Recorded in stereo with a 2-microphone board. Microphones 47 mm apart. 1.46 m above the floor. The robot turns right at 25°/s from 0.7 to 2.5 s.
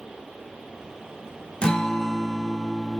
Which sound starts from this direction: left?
A guitar, at 1.6 s.